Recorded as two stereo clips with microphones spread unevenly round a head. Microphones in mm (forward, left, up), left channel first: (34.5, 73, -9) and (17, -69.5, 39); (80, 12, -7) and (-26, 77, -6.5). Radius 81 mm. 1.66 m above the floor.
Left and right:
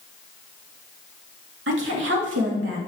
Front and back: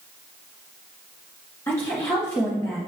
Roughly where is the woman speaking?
Right.